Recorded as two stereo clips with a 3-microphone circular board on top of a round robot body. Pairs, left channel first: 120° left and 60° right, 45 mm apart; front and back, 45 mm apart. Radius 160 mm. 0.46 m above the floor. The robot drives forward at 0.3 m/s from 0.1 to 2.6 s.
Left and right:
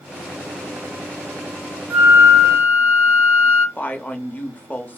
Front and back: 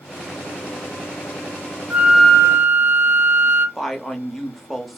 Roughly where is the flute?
Right.